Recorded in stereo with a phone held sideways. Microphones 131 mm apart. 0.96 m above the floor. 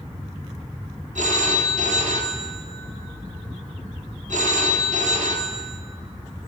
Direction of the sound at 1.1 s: 75° right (ahead or behind).